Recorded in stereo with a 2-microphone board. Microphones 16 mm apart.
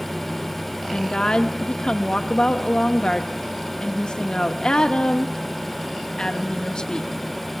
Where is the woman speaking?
60° left (ahead or behind), 1.0 m.